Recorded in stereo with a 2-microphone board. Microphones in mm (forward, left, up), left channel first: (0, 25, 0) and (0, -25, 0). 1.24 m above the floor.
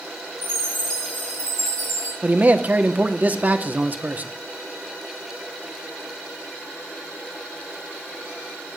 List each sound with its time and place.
0.4 s a chime: 85° right, 8.5 m
2.2 s a man speaking: 35° right (ahead or behind), 1.2 m